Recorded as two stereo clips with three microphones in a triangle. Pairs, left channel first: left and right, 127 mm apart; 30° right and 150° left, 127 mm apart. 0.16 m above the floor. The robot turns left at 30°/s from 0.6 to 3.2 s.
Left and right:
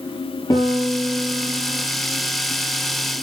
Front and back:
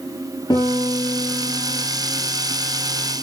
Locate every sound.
0.5 s a piano: 30° left, 6 m; by 1.9 s 5° right, 6 m